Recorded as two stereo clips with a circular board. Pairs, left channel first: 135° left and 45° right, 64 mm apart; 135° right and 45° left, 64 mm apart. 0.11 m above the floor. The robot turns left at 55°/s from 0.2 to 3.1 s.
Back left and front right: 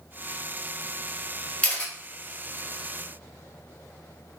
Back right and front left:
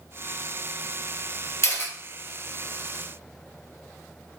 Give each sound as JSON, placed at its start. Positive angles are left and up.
{"t": 1.6, "sound": "a camera shutter", "azimuth_deg": -160, "distance_m": 2.0}